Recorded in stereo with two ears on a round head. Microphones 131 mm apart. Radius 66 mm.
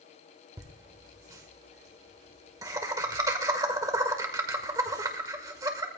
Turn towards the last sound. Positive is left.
turn(degrees=-25)  # may be behind; listen again after turning